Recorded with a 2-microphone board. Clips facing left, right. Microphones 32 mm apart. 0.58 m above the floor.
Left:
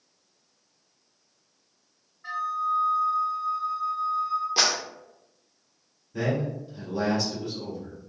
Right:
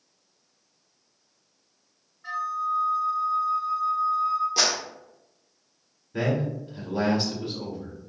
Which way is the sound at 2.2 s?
10° left (ahead or behind).